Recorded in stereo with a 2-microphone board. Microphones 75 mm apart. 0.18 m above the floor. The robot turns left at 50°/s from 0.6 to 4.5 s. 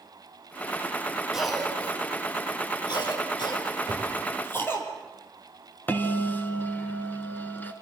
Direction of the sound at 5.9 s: 25° left (ahead or behind).